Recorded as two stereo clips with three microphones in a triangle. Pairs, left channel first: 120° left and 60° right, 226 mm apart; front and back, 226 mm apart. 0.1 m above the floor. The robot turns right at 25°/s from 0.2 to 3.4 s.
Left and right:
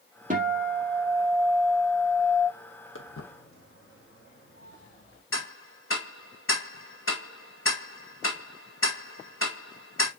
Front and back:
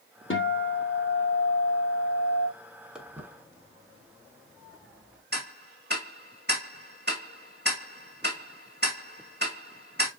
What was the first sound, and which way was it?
A guitar, 10° right.